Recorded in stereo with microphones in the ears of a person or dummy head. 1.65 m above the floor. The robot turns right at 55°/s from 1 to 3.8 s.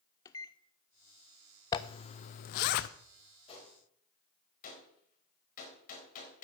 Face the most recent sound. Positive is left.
turn(degrees=50)  # may be behind; listen again after turning